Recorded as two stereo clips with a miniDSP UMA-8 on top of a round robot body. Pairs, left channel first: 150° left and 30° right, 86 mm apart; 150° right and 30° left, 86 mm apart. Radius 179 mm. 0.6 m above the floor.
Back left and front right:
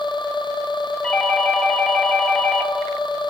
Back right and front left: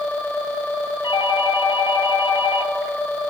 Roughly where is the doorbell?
Behind right.